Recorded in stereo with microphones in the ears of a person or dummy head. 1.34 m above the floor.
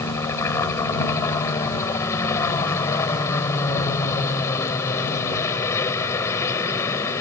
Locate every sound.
0.0 s a helicopter: 25° left (ahead or behind)